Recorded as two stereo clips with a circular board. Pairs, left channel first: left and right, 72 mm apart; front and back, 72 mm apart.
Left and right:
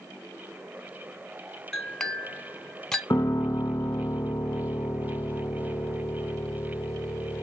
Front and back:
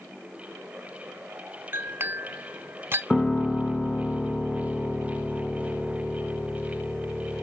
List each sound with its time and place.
1.7 s a clink: 170° left, 0.8 m
3.1 s a piano: 75° left, 0.6 m